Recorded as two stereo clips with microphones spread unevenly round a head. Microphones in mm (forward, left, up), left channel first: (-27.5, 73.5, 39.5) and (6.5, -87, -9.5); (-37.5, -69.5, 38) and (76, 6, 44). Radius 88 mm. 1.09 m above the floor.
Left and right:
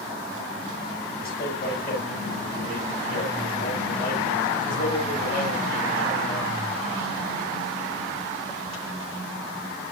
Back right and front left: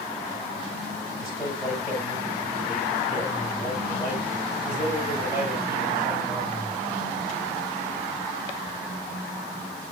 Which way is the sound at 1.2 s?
145° left.